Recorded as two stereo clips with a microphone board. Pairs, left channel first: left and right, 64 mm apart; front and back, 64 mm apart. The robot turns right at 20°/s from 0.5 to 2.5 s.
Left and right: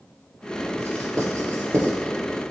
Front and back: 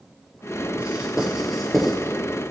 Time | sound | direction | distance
0.8 | writing | 110° right | 2.5 m